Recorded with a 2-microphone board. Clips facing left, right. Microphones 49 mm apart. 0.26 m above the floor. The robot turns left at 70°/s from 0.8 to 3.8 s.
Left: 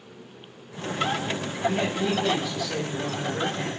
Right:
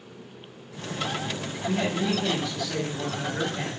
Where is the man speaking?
65° left, 1.2 m; by 3.8 s 85° right, 1.2 m.